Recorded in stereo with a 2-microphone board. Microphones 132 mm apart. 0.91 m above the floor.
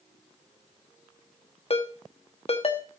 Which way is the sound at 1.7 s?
50° left (ahead or behind).